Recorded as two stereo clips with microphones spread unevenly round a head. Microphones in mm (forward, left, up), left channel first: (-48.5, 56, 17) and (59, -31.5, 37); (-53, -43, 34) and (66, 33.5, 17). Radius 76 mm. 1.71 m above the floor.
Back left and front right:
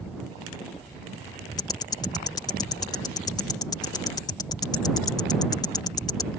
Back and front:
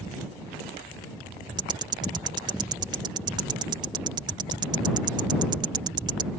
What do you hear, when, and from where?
1.6 s ticking: 85° left